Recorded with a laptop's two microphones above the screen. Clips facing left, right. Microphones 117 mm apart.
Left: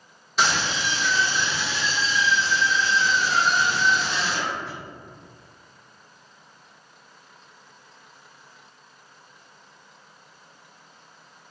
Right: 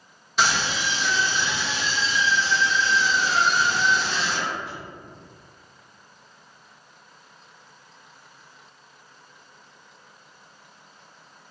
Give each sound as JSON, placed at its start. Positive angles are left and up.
{"t": 0.4, "sound": "a scream", "side_deg": 0, "distance_m": 1.0}